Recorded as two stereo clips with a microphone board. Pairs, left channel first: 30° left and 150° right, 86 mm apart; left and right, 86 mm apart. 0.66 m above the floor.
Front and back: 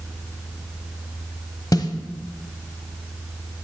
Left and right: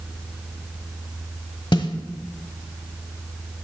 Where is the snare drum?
70° left, 1.1 m.